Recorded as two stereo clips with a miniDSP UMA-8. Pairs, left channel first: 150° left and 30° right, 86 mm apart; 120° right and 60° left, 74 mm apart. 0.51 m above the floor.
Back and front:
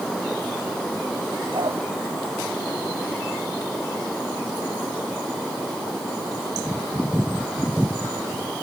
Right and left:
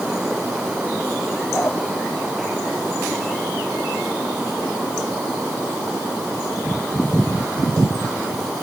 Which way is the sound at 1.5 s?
55° right.